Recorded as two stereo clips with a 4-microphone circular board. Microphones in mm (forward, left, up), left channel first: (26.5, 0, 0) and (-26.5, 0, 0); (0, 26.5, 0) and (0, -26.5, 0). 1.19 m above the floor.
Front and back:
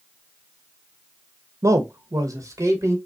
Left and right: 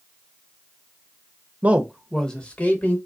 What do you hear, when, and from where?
1.6 s a man speaking: 150° right, 0.5 m; by 3.0 s 150° left, 1.2 m